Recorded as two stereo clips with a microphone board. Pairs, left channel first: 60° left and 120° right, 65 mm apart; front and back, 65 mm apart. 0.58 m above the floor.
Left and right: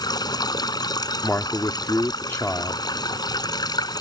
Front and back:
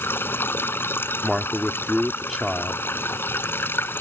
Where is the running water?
60° left.